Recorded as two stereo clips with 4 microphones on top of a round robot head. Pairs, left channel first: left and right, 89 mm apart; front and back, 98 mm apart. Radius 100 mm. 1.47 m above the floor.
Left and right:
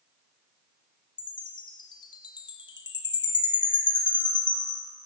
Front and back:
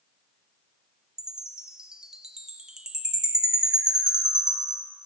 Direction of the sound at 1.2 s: 100° left.